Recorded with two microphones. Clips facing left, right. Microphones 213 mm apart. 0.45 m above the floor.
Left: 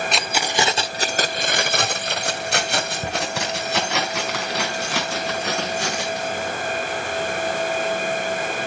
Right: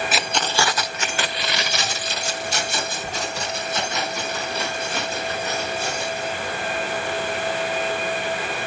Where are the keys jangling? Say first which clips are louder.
Left 1 dB; 5° right (ahead or behind), 0.9 m; by 6.6 s 80° left, 5 m.